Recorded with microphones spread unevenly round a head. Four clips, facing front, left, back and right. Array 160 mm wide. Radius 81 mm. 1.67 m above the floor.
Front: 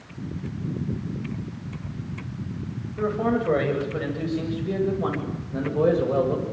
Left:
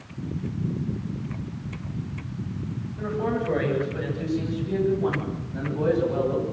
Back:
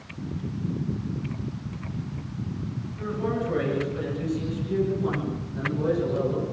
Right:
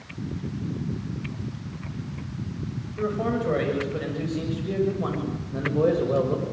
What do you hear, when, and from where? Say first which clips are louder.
3.0 s a man speaking: right 1 dB, front 5 dB; 25° right, 10 m; by 6.4 s 45° right, 8.5 m